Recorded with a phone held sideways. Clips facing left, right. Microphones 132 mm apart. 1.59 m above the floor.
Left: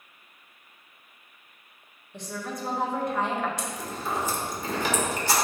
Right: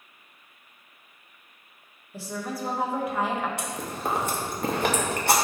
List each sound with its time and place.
2.1 s a woman speaking: 5° right (ahead or behind), 1.7 m
3.6 s chewing: 60° right (ahead or behind), 1.8 m